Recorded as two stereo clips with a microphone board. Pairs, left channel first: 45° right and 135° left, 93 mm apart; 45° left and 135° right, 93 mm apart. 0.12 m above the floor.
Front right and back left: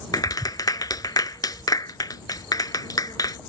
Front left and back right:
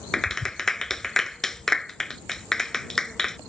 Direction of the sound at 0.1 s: 40° right.